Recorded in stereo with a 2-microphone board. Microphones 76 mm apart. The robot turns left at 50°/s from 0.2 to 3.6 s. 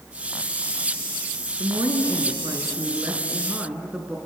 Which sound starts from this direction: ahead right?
A woman speaking, at 1.6 s.